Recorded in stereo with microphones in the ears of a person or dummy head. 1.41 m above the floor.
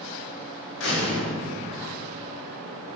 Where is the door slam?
70° left (ahead or behind), 2.5 m.